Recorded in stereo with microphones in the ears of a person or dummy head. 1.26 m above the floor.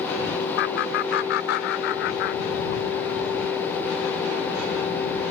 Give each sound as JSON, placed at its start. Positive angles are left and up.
{"t": 0.6, "sound": "laughter", "side_deg": 70}